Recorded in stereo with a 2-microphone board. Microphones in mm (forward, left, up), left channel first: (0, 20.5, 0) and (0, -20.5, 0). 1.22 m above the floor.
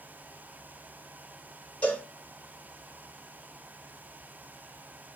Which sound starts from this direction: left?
A cowbell, at 1.8 s.